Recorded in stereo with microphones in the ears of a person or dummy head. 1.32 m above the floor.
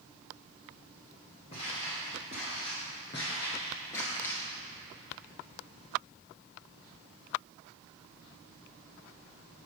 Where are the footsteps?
25° left (ahead or behind), 1.6 m; by 4.4 s 15° left (ahead or behind), 1.6 m.